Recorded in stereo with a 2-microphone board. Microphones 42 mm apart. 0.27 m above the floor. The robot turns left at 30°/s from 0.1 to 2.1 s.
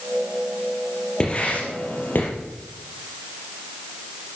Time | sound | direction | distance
1.2 | writing | 25° left (ahead or behind) | 4.5 m